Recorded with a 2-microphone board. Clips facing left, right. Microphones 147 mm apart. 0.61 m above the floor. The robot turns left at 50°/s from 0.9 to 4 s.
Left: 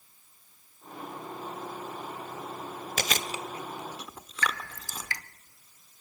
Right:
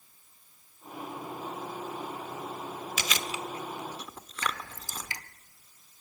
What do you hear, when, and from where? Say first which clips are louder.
3.0 s chewing: left 3 dB; 55° left (ahead or behind), 1.1 m; by 5.1 s 5° left (ahead or behind), 1.1 m
4.4 s dripping: left 2 dB; 20° right (ahead or behind), 0.9 m